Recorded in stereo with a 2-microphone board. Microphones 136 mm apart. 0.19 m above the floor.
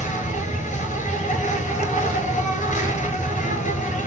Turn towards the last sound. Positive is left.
turn(degrees=75)  # may be behind; listen again after turning